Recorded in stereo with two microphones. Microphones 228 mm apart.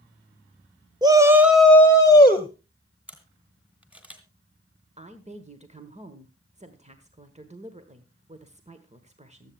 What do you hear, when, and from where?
1.0 s a shout: 20° right (ahead or behind), 1.2 m; by 2.5 s 25° left (ahead or behind), 1.5 m
3.1 s a camera shutter: 5° right (ahead or behind), 2.5 m
5.0 s a woman speaking: 30° right (ahead or behind), 1.3 m